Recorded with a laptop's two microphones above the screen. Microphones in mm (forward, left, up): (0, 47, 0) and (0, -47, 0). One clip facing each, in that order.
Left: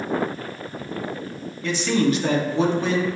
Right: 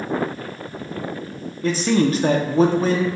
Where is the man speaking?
40° right (ahead or behind), 0.5 m.